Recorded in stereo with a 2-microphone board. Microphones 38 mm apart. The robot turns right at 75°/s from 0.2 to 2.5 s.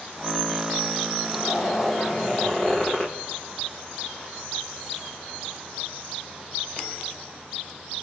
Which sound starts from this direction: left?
A zipper, at 1.2 s.